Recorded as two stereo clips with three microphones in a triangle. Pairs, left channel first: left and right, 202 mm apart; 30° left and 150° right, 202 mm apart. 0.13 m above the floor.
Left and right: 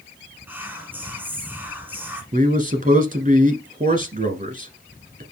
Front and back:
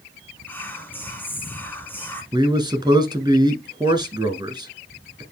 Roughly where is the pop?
No pop in this recording.